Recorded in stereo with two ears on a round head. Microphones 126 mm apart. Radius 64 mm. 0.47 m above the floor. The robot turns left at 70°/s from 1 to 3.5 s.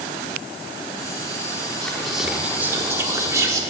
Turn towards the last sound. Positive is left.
turn(degrees=-25)  # may be behind; listen again after turning